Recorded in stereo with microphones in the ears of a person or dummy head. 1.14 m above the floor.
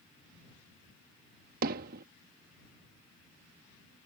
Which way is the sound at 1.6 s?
50° right (ahead or behind).